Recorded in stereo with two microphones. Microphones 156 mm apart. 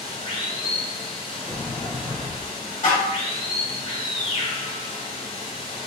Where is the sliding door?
20° left (ahead or behind), 0.9 m.